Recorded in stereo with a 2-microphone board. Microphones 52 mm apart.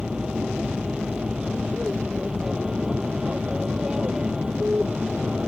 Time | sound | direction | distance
0.0 | an aircraft | 15° right (ahead or behind) | ?